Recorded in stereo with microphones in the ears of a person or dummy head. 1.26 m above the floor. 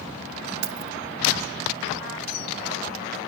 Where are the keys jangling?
70° right (ahead or behind).